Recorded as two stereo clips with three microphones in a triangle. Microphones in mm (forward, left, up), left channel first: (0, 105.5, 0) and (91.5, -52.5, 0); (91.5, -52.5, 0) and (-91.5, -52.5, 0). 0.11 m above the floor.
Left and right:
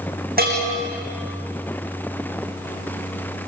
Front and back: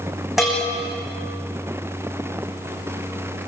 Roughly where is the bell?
Right.